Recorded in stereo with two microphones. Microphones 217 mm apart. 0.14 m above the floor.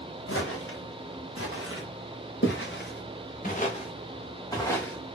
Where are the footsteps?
80° left, 2.0 m; by 5.2 s 5° left (ahead or behind), 1.7 m.